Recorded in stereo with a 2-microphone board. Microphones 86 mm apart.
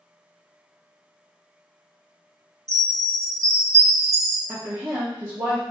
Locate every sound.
2.7 s a chime: 35° right (ahead or behind), 0.6 m
4.5 s a woman speaking: 30° right (ahead or behind), 0.9 m